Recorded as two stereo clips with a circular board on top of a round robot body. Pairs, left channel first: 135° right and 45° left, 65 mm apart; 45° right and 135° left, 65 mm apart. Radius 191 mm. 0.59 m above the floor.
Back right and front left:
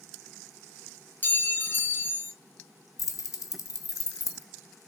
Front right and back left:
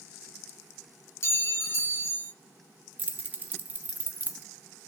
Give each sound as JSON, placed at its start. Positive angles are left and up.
{"t": 1.2, "sound": "a clink", "azimuth_deg": -80, "distance_m": 1.0}
{"t": 3.0, "sound": "keys jangling", "azimuth_deg": -165, "distance_m": 0.6}